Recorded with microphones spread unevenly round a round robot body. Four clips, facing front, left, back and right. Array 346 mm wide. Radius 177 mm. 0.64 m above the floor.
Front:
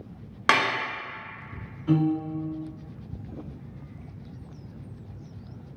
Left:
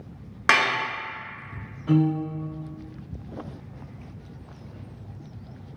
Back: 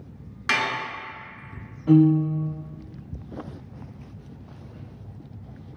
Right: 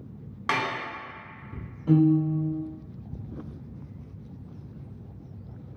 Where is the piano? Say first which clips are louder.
Right 2 dB, back 7 dB; 150° right, 0.8 m.